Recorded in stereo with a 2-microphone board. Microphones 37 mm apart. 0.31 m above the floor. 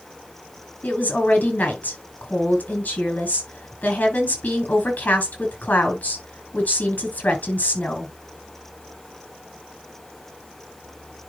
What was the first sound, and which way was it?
A woman speaking, 50° left (ahead or behind).